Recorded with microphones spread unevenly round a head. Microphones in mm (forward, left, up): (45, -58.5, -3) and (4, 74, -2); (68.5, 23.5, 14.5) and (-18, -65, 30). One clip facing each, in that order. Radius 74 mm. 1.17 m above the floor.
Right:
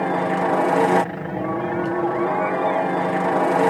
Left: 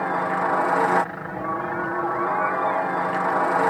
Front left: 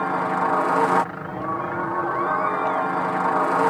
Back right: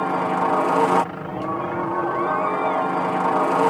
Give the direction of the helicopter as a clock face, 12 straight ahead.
2 o'clock.